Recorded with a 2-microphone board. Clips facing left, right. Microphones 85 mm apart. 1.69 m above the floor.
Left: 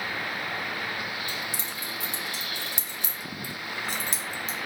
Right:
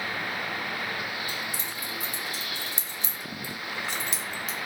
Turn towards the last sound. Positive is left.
turn(degrees=30)  # may be behind; listen again after turning